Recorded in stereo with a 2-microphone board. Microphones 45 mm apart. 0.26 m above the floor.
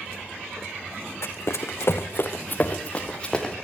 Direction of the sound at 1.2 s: 75° left (ahead or behind).